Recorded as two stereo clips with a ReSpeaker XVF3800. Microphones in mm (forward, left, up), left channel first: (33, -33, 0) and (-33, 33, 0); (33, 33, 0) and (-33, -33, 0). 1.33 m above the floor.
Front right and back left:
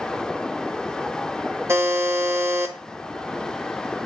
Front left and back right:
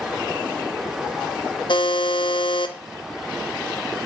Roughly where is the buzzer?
Left.